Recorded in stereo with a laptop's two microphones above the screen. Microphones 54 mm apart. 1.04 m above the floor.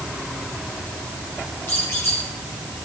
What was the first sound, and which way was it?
A squeak, 45° left (ahead or behind).